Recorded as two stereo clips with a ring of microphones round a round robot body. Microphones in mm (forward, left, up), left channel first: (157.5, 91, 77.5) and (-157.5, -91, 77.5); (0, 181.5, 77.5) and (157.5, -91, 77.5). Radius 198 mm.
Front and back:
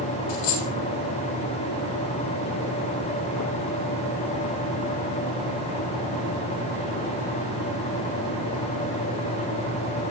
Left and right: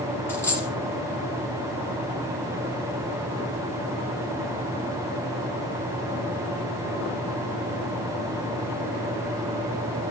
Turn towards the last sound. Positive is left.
turn(degrees=35)